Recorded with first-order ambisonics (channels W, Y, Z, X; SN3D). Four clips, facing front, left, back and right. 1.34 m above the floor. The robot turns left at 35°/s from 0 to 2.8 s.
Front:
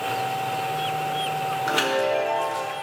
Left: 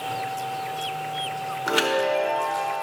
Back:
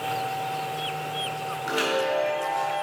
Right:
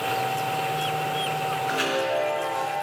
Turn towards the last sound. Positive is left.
turn(degrees=30)